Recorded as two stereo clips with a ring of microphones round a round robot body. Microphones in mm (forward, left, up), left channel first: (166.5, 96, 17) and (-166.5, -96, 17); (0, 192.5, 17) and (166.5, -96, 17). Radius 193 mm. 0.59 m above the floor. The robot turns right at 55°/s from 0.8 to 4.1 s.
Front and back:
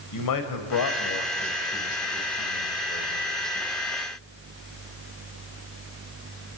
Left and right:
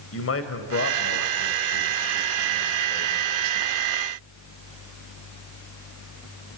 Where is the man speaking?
70° left, 2.5 m; by 3.3 s 150° right, 2.5 m.